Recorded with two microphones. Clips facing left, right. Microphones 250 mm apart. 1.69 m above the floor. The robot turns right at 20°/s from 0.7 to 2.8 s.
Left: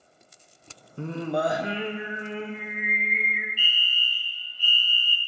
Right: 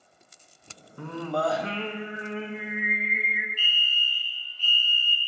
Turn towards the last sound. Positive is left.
turn(degrees=10)  # may be behind; listen again after turning